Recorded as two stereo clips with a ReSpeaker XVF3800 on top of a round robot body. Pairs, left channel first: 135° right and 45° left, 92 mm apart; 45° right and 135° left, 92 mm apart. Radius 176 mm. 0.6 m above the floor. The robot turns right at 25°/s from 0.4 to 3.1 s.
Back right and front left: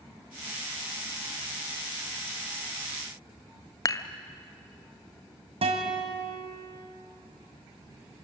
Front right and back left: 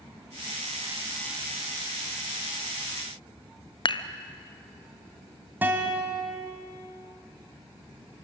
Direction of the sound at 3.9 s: 80° right.